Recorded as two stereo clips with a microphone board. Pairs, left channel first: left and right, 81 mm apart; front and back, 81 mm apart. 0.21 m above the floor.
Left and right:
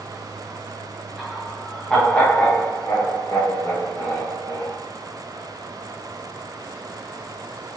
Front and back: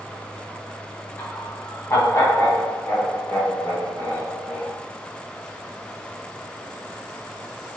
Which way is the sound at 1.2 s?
10° right.